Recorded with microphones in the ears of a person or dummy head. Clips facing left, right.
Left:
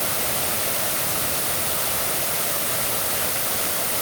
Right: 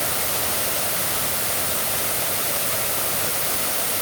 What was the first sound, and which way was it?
Only background noise.